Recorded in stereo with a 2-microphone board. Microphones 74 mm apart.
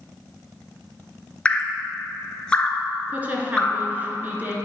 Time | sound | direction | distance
1.4 | dripping | 15° left (ahead or behind) | 0.8 m
3.1 | a woman speaking | 25° right (ahead or behind) | 1.2 m